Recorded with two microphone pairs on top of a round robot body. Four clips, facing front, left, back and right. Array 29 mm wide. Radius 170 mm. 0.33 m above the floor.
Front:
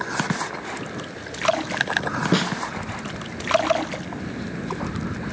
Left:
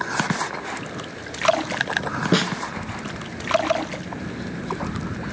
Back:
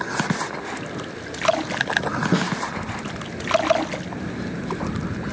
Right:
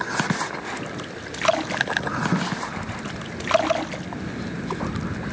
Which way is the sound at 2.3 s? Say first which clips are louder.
Left 8 dB, front 1 dB; 60° left.